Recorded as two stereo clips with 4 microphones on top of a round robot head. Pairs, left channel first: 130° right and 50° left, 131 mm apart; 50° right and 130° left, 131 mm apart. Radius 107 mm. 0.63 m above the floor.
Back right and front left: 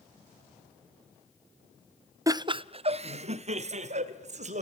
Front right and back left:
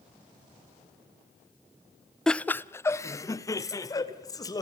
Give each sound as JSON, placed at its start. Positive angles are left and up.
{"t": 2.3, "sound": "laughter", "azimuth_deg": 30, "distance_m": 0.7}